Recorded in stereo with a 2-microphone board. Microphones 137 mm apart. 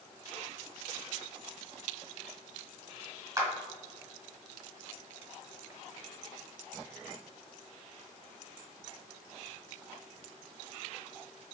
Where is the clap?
25° right (ahead or behind), 2.5 m.